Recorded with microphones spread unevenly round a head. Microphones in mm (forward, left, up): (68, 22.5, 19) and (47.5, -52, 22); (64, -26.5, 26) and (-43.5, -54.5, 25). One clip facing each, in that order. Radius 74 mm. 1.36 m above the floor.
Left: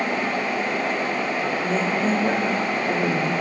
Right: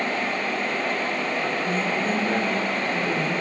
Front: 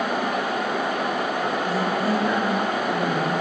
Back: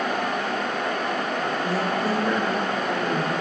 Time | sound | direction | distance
1.6 | a woman speaking | 105° left | 3.5 m